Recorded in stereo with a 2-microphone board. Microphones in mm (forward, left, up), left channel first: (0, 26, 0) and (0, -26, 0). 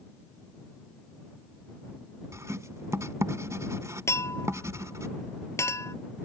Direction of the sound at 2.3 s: 80° right.